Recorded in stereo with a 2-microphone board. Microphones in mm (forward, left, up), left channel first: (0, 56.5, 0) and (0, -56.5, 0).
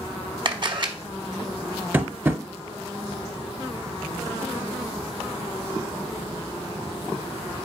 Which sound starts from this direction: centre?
Tapping, at 1.9 s.